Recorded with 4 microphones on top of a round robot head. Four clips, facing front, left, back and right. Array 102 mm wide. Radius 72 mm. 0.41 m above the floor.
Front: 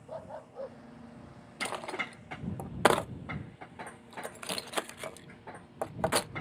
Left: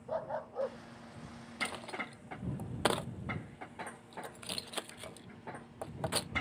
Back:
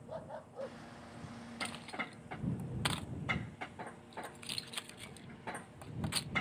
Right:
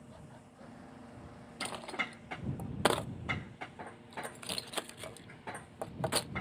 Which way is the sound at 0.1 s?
75° left.